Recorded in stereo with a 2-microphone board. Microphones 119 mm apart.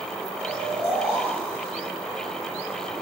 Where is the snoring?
55° left (ahead or behind), 1.3 m.